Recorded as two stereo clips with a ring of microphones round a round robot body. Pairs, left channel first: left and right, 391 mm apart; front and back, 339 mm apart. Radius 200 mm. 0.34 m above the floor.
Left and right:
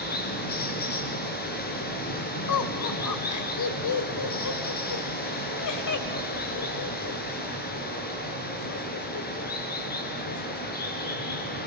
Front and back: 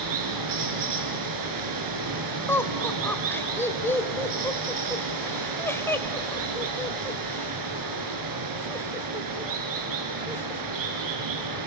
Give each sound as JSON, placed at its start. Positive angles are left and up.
{"t": 0.0, "sound": "running water", "azimuth_deg": 160, "distance_m": 4.0}
{"t": 2.5, "sound": "laughter", "azimuth_deg": 80, "distance_m": 1.9}